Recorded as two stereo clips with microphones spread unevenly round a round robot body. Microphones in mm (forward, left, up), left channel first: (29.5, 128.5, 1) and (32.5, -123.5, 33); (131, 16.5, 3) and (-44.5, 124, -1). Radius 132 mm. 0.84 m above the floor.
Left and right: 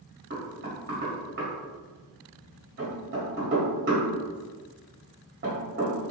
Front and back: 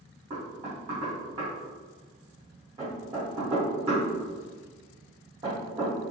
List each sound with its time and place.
0.3 s knocking: 145° right, 1.8 m